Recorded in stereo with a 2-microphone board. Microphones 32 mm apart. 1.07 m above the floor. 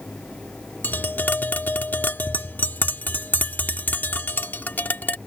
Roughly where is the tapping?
Left.